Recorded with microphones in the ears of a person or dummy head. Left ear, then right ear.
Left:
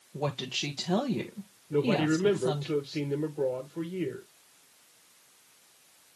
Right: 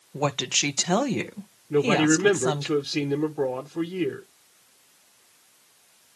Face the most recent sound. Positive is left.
turn(degrees=-50)  # may be behind; listen again after turning